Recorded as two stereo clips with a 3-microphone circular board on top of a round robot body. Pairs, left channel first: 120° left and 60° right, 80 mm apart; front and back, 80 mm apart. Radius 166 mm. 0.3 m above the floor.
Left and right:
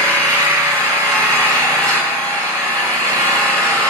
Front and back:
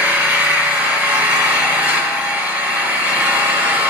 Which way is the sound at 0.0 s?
115° right.